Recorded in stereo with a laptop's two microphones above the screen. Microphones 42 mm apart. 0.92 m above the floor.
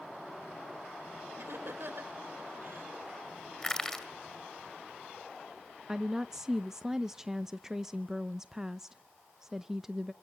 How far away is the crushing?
About 2.5 m.